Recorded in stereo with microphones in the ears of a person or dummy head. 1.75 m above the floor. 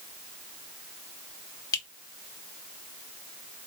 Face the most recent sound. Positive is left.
turn(degrees=20)  # may be behind; listen again after turning